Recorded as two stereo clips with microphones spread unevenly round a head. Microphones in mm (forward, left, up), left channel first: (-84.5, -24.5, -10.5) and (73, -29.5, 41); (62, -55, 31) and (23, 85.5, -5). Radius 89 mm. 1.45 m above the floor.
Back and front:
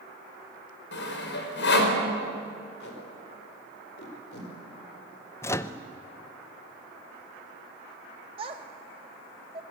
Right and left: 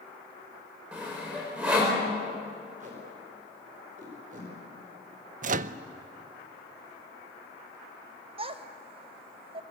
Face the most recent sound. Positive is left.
turn(degrees=50)